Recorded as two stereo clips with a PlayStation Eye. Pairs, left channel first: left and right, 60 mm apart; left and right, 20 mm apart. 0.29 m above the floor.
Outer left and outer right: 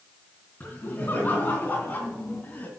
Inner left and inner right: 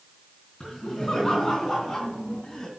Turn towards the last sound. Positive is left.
turn(degrees=30)  # may be behind; listen again after turning